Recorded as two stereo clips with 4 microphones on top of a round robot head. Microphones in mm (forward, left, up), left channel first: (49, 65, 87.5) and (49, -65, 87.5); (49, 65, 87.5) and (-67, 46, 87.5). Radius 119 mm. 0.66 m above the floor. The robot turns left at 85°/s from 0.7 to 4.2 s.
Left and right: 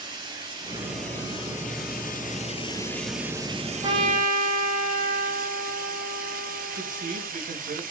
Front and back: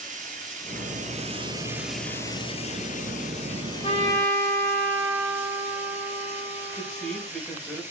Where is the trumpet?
30° right, 5.5 m; by 7.3 s 65° right, 5.5 m.